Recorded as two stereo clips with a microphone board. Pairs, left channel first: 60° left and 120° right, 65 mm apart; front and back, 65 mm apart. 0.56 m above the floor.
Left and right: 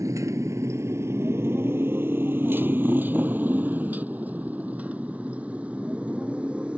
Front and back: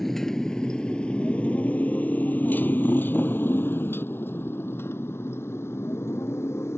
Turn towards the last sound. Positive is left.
turn(degrees=-50)